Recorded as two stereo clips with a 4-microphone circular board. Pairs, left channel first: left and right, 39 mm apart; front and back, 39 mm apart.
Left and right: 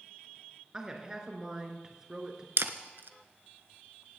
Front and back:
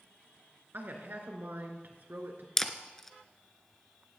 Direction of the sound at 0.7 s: 160° right.